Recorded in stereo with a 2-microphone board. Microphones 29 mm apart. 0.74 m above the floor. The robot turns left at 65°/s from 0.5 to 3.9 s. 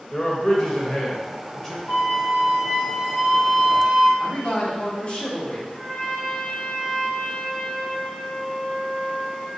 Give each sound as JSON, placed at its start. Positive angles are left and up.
{"t": 0.1, "sound": "a man speaking", "side_deg": 25, "distance_m": 0.9}
{"t": 1.9, "sound": "a flute", "azimuth_deg": 45, "distance_m": 0.8}
{"t": 4.2, "sound": "a man speaking", "side_deg": 40, "distance_m": 1.0}
{"t": 5.7, "sound": "a trumpet", "side_deg": 45, "distance_m": 1.6}